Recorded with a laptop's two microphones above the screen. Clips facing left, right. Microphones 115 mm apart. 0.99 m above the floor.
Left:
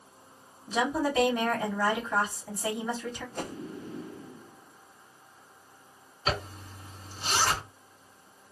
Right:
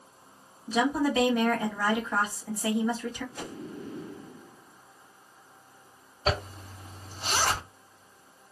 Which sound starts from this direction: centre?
A woman speaking, at 0.7 s.